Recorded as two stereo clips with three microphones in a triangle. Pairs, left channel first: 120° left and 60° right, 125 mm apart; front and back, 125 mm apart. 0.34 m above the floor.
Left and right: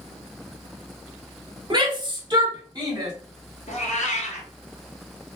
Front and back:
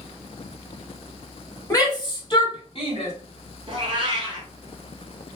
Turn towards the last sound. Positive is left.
turn(degrees=130)